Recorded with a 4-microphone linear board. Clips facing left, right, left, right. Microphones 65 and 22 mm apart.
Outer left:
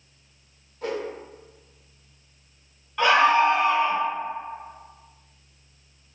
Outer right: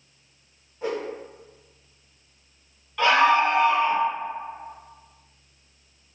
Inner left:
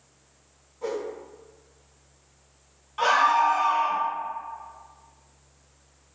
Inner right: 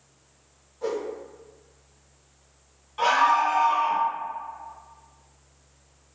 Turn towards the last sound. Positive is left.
turn(degrees=10)  # may be behind; listen again after turning